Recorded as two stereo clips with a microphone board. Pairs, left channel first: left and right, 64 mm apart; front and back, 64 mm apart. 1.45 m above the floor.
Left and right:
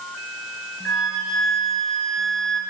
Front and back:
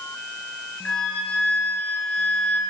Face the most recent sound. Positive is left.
turn(degrees=35)